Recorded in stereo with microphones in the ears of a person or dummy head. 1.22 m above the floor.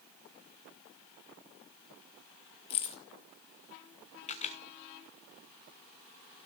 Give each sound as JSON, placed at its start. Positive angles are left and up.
{"t": 2.7, "sound": "keys jangling", "side_deg": 30, "distance_m": 0.5}
{"t": 4.3, "sound": "a camera shutter", "side_deg": 35, "distance_m": 1.1}